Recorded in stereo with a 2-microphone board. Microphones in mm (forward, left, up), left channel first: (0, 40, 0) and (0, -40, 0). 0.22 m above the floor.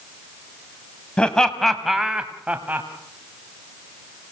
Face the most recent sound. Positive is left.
turn(degrees=-20)  # may be behind; listen again after turning